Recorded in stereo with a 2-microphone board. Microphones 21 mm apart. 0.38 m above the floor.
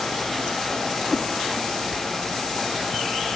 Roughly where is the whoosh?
Left.